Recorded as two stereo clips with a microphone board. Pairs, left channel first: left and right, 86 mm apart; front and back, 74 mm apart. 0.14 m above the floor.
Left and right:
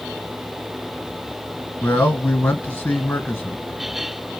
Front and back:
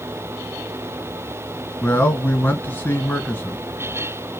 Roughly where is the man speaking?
Ahead left.